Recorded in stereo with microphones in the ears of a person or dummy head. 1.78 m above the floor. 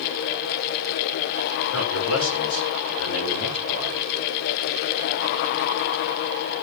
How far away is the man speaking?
About 7 m.